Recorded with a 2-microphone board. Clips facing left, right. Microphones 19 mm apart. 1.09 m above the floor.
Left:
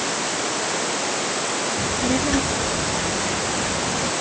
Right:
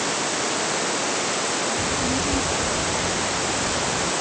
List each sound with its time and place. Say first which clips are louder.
1.8 s a child speaking: left 2 dB; 60° left (ahead or behind); by 4.1 s 50° left (ahead or behind)